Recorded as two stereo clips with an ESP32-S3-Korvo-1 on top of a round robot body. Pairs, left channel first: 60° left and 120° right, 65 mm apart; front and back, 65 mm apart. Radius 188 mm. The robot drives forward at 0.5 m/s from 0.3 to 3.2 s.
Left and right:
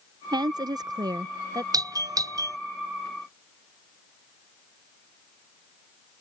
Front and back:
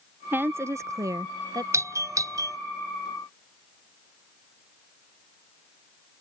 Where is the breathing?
I don't hear breathing.